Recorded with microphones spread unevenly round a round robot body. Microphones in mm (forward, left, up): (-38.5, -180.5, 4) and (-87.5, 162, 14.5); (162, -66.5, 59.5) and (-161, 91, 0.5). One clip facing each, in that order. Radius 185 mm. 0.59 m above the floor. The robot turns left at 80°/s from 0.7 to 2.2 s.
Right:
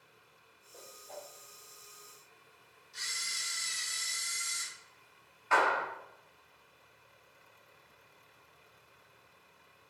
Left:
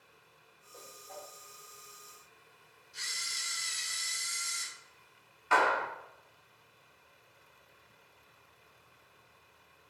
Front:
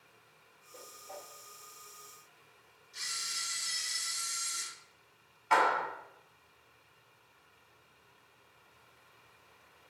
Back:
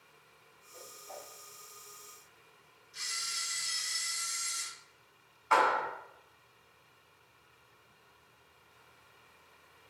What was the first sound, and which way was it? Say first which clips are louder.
A whoosh: right 1 dB, even; straight ahead.